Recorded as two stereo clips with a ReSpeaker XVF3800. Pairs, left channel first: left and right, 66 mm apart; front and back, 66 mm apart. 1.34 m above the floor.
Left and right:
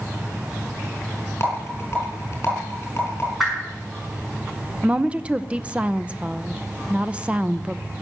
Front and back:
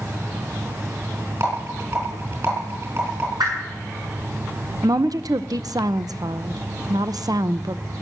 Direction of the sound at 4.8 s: 160° right.